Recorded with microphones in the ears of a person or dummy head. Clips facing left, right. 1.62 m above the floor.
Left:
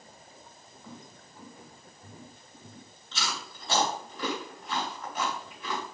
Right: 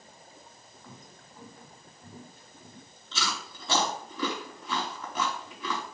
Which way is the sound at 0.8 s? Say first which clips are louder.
Left 4 dB; 5° left (ahead or behind).